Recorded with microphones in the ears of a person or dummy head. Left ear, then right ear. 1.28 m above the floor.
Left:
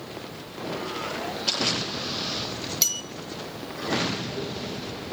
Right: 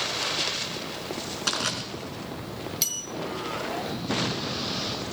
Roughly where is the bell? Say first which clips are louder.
Left 4 dB; centre.